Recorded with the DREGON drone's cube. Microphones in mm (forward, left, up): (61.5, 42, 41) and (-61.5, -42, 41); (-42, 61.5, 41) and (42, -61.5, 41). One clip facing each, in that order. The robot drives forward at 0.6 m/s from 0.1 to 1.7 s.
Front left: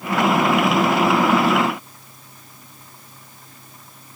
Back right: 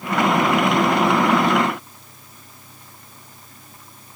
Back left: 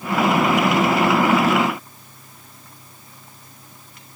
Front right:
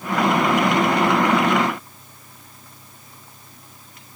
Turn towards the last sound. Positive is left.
No sound to turn to.